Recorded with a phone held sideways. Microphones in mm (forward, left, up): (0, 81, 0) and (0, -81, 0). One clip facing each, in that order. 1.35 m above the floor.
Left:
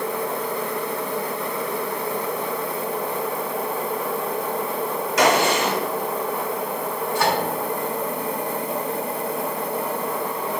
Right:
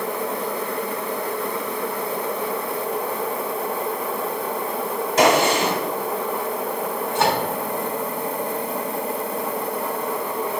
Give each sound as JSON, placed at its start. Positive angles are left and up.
{"t": 5.2, "sound": "a gunshot", "side_deg": -30, "distance_m": 1.4}
{"t": 7.2, "sound": "a microwave", "side_deg": -25, "distance_m": 1.1}